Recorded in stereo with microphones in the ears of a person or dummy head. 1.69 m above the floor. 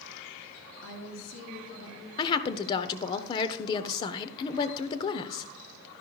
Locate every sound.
0.8 s a woman speaking: 75° left (ahead or behind), 2.5 m
2.2 s a woman speaking: 25° left (ahead or behind), 0.8 m